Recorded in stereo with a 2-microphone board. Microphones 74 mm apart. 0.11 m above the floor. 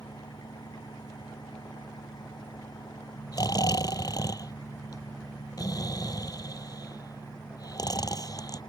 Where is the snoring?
65° left (ahead or behind).